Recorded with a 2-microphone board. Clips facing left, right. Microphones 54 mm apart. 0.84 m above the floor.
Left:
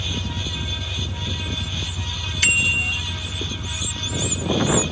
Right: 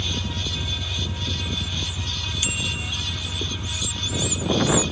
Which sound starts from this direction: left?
A bicycle bell, at 2.4 s.